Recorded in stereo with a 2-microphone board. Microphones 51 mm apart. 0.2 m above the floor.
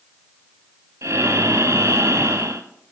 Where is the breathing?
70° right (ahead or behind), 1.0 m.